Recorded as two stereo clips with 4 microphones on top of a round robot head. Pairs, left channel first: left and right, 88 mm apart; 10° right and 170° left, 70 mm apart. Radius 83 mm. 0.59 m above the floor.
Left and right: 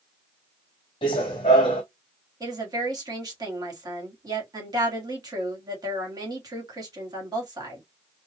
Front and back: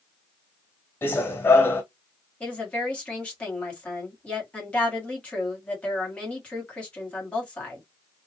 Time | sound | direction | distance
1.0 | running footsteps | 45° left | 1.2 m
2.4 | a woman speaking | 75° right | 1.7 m